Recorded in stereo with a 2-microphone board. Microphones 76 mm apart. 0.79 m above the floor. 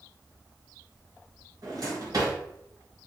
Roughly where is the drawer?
Right.